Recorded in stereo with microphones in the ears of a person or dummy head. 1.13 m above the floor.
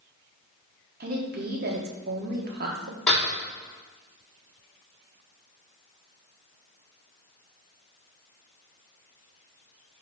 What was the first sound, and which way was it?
A woman speaking, 45° right (ahead or behind).